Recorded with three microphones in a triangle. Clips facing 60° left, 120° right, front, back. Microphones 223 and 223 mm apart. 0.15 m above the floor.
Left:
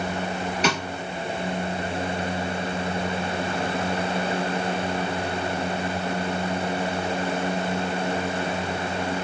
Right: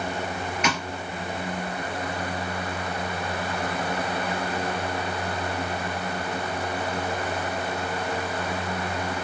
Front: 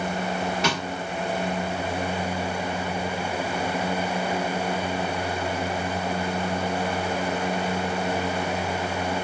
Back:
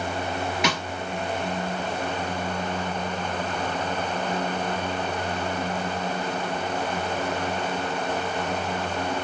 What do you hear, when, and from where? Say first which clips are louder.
0.6 s a snare drum: left 3 dB, back 2 dB; 110° left, 1.5 m